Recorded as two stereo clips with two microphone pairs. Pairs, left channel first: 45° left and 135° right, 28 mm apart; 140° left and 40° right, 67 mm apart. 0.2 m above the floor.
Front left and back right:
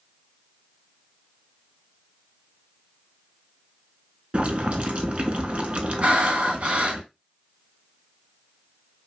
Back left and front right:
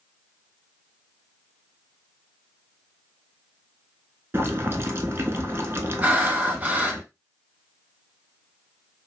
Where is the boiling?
90° right, 0.6 m.